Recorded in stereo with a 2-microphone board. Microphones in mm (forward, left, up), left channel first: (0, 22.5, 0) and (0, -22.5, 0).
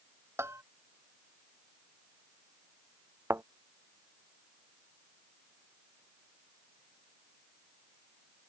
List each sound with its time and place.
0.4 s a bell: 80° right
3.3 s a thud: 75° right (ahead or behind)